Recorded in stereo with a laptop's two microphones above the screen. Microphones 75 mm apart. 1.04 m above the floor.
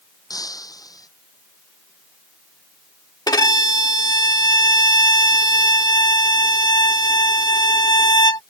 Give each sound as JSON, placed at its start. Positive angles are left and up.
{"t": 0.3, "sound": "breaking glass", "side_deg": 55}
{"t": 3.3, "sound": "a violin", "side_deg": 60}